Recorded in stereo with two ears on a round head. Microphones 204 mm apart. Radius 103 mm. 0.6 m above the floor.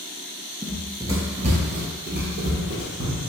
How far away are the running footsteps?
About 0.6 m.